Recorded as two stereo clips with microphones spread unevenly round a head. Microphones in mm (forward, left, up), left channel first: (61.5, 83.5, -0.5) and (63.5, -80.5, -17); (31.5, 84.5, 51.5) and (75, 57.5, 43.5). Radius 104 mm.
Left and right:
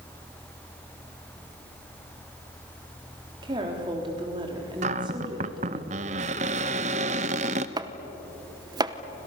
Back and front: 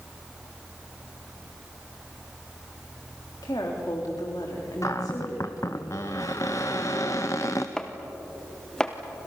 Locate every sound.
3.4 s a woman speaking: 160° right, 3.5 m
4.8 s a cupboard door: 145° right, 0.7 m
7.8 s chopping: 150° right, 0.8 m